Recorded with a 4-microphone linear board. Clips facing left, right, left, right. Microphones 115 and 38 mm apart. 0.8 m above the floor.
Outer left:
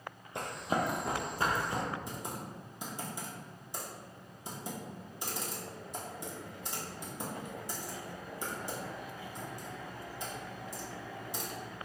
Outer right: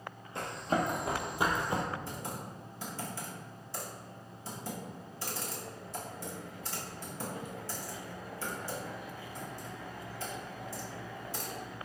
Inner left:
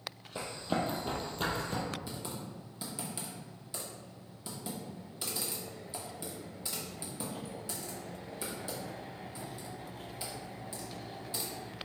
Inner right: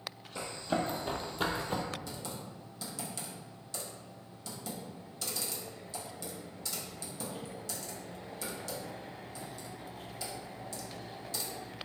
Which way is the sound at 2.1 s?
20° left (ahead or behind).